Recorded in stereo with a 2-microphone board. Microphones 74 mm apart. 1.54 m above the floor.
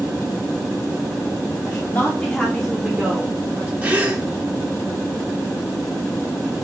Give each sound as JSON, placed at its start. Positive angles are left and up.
{"t": 1.7, "sound": "a woman speaking", "side_deg": 45, "distance_m": 1.1}
{"t": 3.8, "sound": "a gasp", "side_deg": -20, "distance_m": 1.2}